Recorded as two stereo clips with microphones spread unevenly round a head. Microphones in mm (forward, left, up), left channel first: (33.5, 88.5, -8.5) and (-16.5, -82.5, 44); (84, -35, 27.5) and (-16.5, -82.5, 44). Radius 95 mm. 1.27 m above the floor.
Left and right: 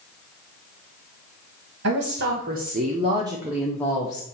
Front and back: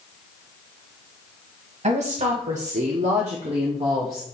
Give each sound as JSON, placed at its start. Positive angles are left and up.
{"t": 1.8, "sound": "a woman speaking", "azimuth_deg": -140, "distance_m": 1.8}